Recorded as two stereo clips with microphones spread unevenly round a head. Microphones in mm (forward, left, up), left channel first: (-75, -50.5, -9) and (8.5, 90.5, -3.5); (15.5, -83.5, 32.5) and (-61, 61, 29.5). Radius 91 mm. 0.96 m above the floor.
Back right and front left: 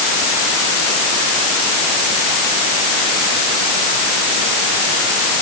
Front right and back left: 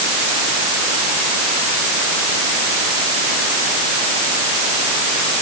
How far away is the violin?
I don't hear a violin.